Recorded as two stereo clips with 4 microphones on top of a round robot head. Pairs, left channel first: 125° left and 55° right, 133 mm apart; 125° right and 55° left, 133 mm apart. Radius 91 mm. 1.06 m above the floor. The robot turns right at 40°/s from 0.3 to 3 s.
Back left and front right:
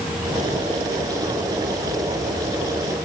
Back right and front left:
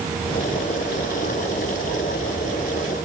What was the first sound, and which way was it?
Only background noise.